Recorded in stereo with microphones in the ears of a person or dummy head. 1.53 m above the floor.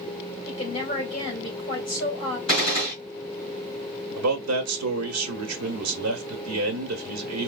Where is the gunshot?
40° left (ahead or behind), 2.5 m.